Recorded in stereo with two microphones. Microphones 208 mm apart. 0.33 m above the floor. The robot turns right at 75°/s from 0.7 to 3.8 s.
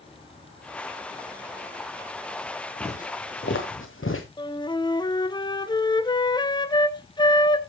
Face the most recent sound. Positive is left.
turn(degrees=20)  # may be behind; listen again after turning